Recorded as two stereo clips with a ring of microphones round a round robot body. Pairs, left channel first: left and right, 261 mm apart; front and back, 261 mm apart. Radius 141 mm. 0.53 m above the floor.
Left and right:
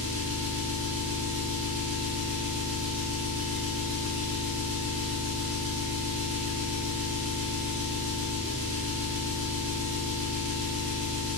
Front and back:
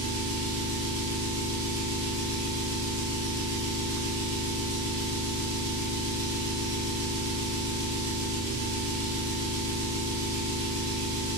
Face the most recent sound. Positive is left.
turn(degrees=-150)